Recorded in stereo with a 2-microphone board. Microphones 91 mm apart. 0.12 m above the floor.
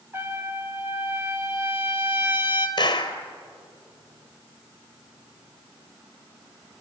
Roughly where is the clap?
Left.